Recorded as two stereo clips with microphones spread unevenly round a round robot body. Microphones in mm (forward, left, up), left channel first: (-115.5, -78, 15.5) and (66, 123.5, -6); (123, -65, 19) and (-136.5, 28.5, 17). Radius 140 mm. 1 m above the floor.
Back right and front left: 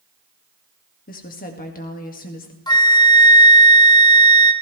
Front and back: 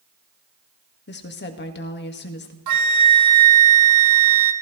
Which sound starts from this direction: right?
A woman speaking, at 1.1 s.